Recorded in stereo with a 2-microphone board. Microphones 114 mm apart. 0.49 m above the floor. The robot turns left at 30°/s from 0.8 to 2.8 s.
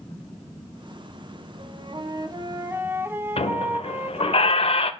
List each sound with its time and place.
1.6 s a flute: 120° right, 0.8 m; by 4.4 s 160° right, 0.8 m
3.4 s a squeak: 60° left (ahead or behind), 0.6 m